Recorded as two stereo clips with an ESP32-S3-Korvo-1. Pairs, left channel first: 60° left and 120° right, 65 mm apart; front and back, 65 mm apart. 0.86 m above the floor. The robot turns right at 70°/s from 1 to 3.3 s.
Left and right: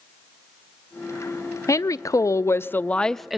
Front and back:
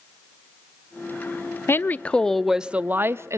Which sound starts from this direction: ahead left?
A woman speaking, at 1.7 s.